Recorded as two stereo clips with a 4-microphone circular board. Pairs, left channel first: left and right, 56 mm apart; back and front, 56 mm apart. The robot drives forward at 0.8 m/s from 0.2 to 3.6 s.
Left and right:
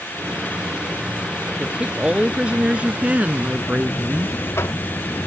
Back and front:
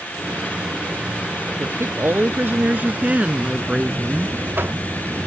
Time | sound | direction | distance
1.6 | a woman speaking | 25° right | ?
3.6 | a buzzer | 50° left | ?